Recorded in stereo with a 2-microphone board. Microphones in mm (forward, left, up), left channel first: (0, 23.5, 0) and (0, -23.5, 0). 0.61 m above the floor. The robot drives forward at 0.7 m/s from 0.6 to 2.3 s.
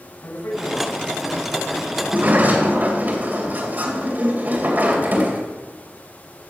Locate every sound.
0.2 s a man speaking: 75° left (ahead or behind), 4.5 m; by 1.9 s 80° left, 4.5 m
2.0 s a sliding door: 40° right (ahead or behind), 3 m